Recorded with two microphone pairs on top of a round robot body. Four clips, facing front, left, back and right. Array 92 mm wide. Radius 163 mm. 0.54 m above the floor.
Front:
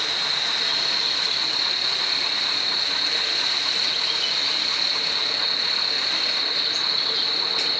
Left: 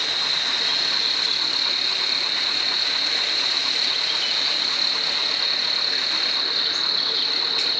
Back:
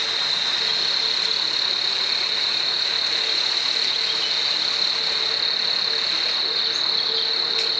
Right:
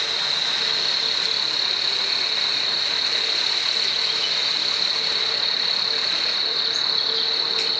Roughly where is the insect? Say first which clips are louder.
Even, even; left.